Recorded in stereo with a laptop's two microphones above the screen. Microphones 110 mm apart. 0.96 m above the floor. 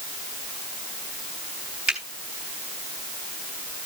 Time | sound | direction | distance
1.9 | a finger snap | 5° right (ahead or behind) | 3 m